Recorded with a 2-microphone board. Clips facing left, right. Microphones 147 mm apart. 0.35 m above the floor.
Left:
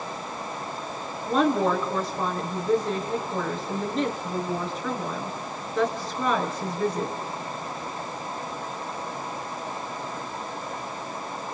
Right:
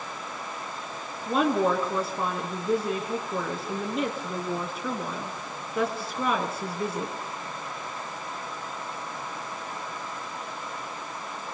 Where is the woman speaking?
5° right (ahead or behind), 5 m.